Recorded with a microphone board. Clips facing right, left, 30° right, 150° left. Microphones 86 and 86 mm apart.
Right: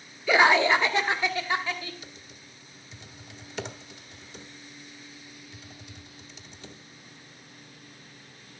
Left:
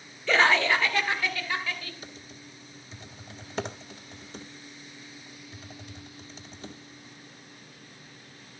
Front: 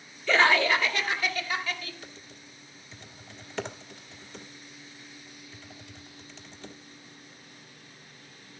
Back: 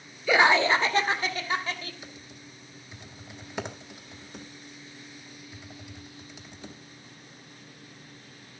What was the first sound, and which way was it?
Laughter, 145° right.